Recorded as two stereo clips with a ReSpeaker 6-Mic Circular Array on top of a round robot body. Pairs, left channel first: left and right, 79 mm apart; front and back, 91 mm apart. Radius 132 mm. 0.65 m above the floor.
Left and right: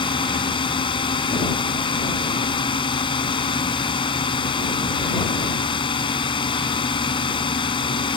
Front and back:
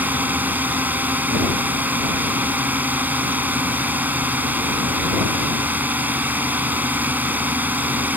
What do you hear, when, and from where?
0.0 s a drone: 110° left